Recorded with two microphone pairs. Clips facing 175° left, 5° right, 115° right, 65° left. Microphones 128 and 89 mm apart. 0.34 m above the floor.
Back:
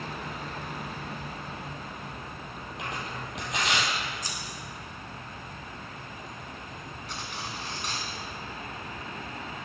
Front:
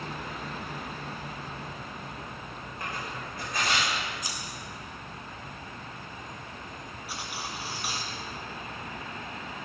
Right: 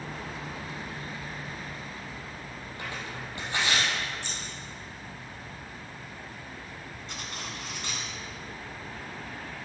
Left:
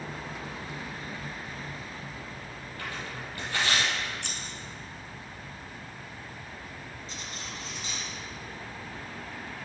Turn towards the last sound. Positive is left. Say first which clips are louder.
# front 1 dB, right 4 dB
turn(degrees=-85)